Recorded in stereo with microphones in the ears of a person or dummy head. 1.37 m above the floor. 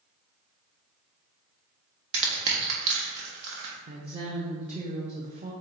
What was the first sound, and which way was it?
Crushing, 65° right (ahead or behind).